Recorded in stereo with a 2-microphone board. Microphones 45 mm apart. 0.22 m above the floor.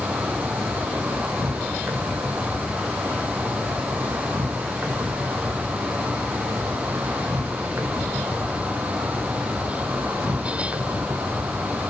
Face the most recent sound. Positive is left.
turn(degrees=-70)  # may be behind; listen again after turning